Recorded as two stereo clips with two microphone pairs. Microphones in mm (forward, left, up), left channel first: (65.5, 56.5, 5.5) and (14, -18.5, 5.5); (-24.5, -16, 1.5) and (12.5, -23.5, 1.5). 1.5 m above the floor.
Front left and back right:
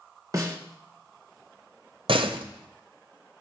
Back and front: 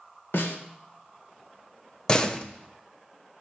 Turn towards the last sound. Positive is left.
turn(degrees=-125)